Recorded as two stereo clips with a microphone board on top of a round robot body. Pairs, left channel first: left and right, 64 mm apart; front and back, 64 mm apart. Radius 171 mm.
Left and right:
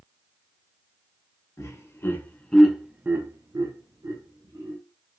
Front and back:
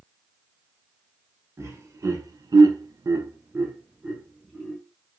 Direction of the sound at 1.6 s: 135° left.